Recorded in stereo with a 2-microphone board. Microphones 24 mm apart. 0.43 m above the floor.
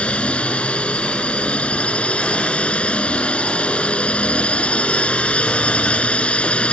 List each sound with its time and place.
0.0 s a drone: 60° left (ahead or behind)